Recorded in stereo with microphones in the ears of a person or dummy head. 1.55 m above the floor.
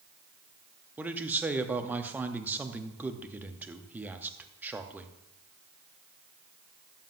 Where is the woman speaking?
10° right (ahead or behind), 0.8 m.